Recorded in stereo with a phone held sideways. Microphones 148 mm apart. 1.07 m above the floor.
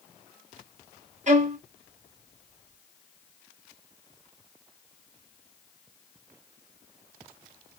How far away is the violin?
About 0.6 m.